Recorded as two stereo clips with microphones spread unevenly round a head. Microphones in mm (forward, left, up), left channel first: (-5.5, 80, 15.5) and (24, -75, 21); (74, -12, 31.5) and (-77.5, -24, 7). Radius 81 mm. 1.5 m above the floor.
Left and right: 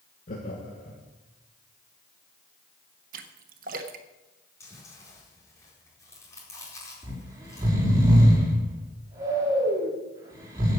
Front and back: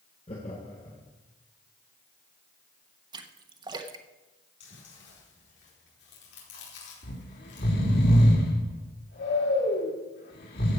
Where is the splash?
110° right, 1.2 m.